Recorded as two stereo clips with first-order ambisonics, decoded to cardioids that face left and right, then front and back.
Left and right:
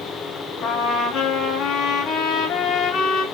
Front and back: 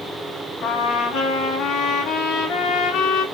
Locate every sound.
0.6 s a trumpet: 40° left, 1.1 m